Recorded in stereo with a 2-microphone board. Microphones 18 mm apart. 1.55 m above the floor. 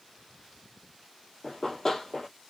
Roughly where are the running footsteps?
Left.